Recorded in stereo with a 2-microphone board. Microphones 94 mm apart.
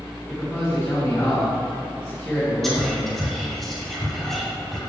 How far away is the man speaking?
About 2.0 m.